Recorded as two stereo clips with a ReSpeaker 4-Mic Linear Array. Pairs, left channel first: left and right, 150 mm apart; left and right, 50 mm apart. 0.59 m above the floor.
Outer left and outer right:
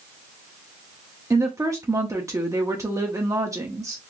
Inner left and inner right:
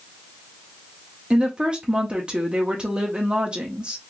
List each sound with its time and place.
1.3 s a woman speaking: 20° right (ahead or behind), 0.7 m